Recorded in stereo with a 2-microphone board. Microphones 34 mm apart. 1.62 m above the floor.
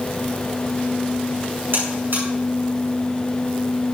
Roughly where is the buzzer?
Right.